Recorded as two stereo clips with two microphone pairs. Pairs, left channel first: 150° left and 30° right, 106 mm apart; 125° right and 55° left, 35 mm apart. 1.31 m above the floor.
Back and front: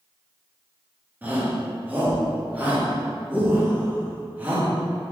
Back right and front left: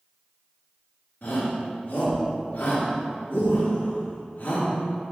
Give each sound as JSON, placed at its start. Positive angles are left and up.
{"t": 1.2, "sound": "a shout", "azimuth_deg": -100, "distance_m": 2.0}